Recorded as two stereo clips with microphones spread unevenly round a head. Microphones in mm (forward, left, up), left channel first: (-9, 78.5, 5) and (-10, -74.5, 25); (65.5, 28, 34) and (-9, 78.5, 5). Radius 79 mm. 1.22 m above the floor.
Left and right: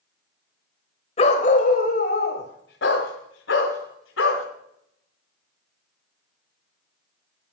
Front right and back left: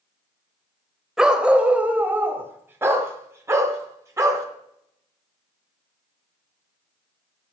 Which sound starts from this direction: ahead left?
A dog barking, at 1.2 s.